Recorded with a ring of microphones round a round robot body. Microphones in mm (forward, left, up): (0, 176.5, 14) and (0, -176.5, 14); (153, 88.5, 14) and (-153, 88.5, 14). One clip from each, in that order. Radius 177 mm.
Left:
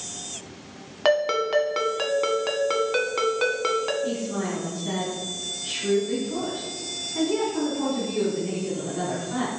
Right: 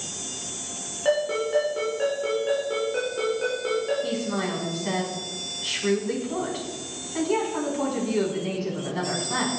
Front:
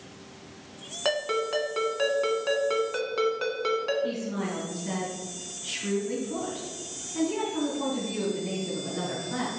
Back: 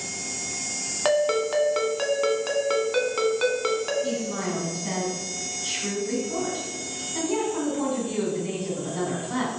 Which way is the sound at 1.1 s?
115° left.